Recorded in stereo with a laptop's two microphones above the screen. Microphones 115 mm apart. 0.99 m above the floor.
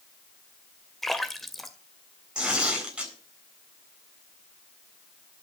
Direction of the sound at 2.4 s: 10° right (ahead or behind).